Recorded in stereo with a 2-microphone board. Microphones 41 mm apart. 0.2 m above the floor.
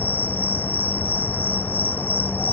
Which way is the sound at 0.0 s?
50° left (ahead or behind).